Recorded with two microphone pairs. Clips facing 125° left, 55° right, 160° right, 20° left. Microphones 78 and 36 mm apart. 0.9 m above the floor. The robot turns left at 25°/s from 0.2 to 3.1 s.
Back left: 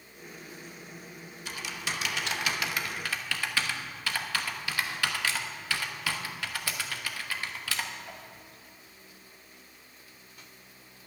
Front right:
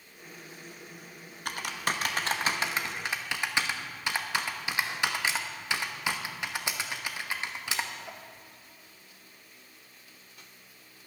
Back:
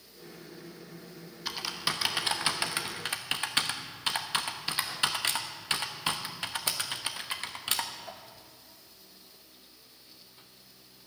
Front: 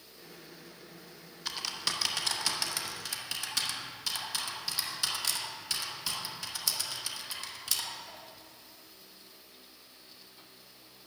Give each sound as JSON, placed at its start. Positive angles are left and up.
{"t": 1.4, "sound": "typing on a keyboard", "azimuth_deg": -80, "distance_m": 1.0}